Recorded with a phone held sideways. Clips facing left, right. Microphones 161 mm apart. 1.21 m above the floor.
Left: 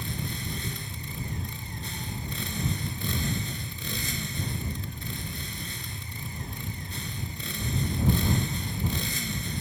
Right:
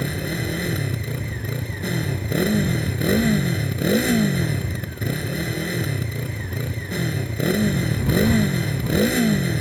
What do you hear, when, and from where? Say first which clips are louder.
0.0 s a motorcycle: right 10 dB; 70° right (ahead or behind)